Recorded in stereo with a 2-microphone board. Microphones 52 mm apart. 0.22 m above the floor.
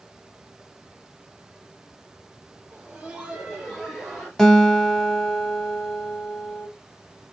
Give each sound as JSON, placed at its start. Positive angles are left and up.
{"t": 2.7, "sound": "laughter", "side_deg": -25, "distance_m": 1.0}
{"t": 4.4, "sound": "a guitar", "side_deg": 10, "distance_m": 0.6}